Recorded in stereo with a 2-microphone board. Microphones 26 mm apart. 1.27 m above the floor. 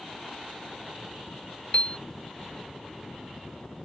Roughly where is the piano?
Left.